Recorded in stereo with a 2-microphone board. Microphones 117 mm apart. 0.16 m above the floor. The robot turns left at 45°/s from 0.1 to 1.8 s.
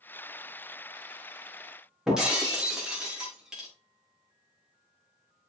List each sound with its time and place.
2.1 s breaking glass: 5° right (ahead or behind), 4.5 m